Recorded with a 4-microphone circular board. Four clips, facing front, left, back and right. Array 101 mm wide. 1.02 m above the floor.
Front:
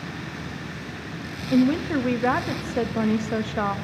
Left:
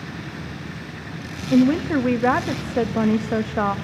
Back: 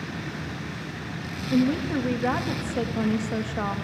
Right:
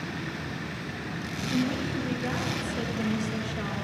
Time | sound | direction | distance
1.5 | a woman speaking | 75° left | 1.6 m